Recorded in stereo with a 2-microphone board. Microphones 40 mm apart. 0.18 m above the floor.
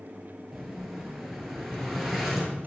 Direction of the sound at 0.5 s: Centre (ahead or behind).